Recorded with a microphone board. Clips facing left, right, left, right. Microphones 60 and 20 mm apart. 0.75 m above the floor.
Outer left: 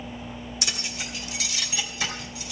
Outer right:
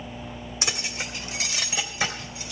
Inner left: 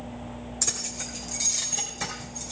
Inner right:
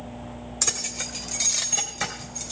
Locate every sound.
0.6 s keys jangling: 30° right (ahead or behind), 1.6 m; by 2.5 s 25° right (ahead or behind), 3 m